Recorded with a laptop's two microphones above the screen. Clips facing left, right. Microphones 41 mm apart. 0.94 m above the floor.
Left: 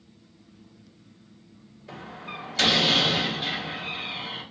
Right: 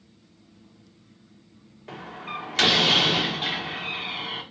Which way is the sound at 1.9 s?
55° right (ahead or behind).